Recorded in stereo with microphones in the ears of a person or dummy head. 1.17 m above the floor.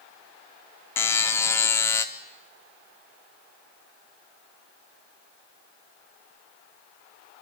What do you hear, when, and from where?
1.0 s a buzzer: 10° left (ahead or behind), 0.9 m